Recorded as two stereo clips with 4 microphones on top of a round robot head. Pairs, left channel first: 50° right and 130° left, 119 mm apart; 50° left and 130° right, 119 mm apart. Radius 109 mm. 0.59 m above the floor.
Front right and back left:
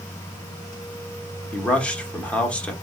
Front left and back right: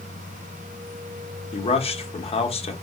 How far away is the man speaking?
About 1.3 m.